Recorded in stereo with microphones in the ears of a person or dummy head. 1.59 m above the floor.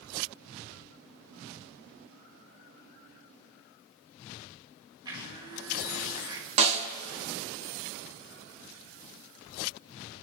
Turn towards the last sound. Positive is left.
turn(degrees=-35)  # may be behind; listen again after turning